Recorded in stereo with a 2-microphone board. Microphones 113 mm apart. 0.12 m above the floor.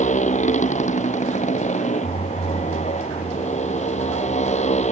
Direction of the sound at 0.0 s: 85° left.